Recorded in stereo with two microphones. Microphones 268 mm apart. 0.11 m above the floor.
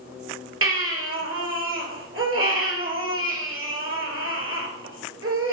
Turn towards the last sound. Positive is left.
turn(degrees=-55)  # may be behind; listen again after turning